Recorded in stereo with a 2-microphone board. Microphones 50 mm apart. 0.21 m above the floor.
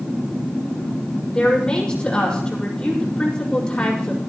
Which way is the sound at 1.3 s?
15° left (ahead or behind).